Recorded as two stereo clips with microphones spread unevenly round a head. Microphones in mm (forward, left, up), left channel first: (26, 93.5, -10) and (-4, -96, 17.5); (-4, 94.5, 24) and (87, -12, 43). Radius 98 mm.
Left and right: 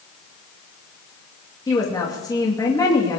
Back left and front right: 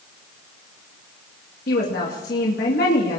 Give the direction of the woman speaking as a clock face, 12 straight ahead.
7 o'clock.